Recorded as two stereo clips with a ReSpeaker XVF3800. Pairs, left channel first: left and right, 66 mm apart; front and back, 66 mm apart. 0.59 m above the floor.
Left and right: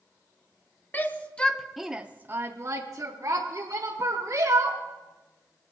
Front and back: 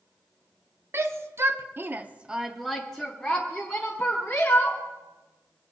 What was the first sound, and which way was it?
A shout, 145° left.